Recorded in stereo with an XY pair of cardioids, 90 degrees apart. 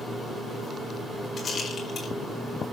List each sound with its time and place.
1.4 s a rattle: 45° left, 4.5 m